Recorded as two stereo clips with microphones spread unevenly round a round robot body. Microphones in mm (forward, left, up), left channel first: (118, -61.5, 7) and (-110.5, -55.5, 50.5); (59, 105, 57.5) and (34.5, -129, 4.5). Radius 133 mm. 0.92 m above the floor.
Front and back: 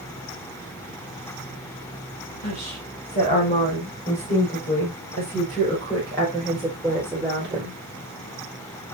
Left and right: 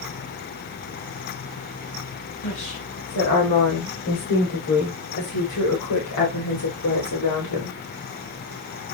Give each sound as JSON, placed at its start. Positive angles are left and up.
{"t": 2.4, "sound": "a woman speaking", "azimuth_deg": 50, "distance_m": 6.5}